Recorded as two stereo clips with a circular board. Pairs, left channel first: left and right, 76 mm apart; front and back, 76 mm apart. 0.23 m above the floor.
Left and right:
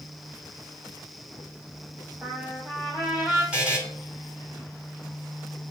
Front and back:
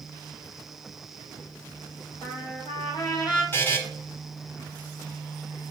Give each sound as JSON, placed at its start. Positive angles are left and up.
{"t": 2.2, "sound": "a trumpet", "azimuth_deg": -20, "distance_m": 3.5}
{"t": 3.5, "sound": "a buzzer", "azimuth_deg": -30, "distance_m": 1.8}